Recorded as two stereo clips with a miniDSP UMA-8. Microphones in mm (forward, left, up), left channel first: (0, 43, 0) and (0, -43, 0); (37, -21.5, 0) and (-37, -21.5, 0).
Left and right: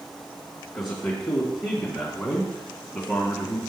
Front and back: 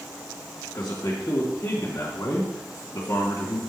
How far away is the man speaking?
About 1.6 m.